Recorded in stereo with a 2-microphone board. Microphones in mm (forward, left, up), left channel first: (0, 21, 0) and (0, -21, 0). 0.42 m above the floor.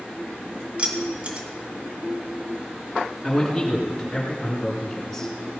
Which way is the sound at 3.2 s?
5° left (ahead or behind).